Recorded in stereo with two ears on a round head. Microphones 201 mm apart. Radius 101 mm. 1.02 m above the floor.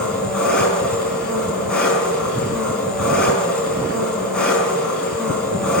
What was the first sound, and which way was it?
An engine running, 5° left (ahead or behind).